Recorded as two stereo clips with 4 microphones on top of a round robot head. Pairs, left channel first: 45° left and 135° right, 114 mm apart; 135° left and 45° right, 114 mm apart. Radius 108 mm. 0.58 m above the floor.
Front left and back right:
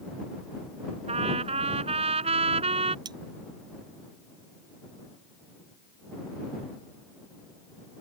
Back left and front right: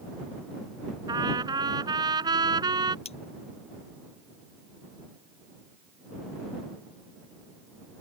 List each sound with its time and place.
1.1 s a trumpet: 100° right
3.0 s cutlery clinking: 170° left